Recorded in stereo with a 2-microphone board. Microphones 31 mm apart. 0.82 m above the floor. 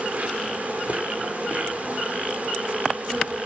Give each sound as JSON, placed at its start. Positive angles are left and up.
{"t": 0.0, "sound": "an insect", "side_deg": -45, "distance_m": 4.0}